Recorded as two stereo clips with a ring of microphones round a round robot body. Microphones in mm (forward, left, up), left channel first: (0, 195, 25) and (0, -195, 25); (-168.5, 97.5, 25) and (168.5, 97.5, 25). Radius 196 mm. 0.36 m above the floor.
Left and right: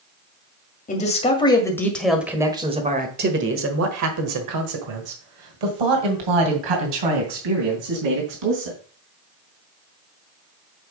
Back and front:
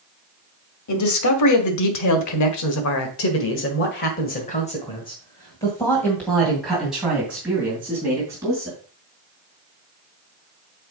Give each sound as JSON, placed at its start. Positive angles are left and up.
{"t": 0.9, "sound": "a man speaking", "azimuth_deg": 155, "distance_m": 1.9}